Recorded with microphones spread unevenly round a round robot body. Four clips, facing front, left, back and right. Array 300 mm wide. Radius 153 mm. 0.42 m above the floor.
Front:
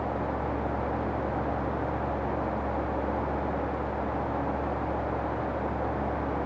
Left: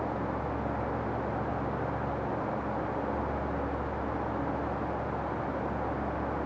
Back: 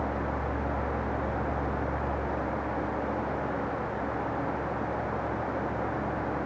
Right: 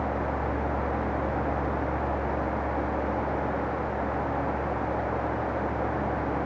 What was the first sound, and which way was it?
Only background noise.